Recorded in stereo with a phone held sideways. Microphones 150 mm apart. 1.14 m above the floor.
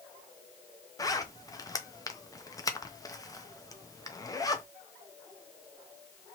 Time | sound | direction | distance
1.0 | a zipper | 25° left (ahead or behind) | 0.5 m